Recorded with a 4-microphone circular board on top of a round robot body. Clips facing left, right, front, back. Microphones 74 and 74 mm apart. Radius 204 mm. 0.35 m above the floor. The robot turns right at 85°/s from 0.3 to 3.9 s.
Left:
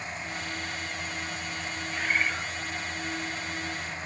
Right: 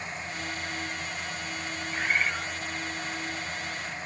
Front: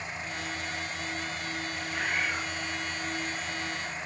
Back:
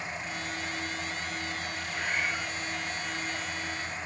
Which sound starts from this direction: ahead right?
A bird, at 1.9 s.